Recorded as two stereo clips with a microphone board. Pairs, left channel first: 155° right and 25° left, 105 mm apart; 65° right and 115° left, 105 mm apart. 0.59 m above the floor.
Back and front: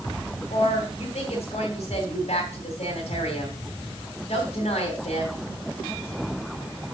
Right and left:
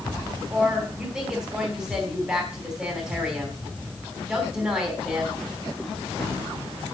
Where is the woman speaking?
175° right, 3.5 m.